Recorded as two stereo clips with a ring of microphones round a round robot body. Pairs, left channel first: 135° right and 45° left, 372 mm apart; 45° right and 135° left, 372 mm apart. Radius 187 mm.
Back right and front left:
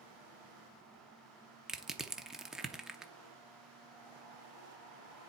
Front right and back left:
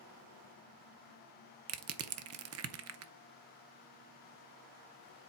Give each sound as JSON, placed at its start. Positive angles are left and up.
{"t": 1.7, "sound": "crushing", "azimuth_deg": 135, "distance_m": 0.7}